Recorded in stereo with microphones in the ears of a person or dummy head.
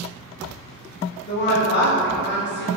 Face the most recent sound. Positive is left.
turn(degrees=45)  # may be behind; listen again after turning